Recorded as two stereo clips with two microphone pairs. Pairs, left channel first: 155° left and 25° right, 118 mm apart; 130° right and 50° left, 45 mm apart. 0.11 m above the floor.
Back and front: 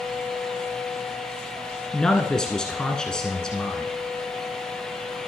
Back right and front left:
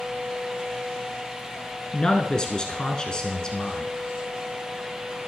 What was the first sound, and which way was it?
A man speaking, 130° right.